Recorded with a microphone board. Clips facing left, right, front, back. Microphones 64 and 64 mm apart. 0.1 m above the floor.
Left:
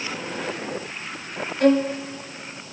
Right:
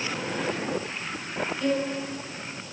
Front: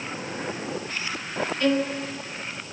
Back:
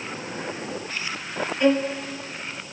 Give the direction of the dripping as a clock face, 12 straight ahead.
I don't hear dripping.